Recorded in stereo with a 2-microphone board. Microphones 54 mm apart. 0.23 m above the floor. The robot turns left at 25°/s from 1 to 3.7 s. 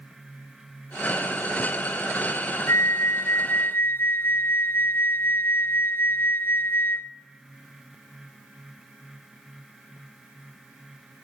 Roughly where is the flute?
Left.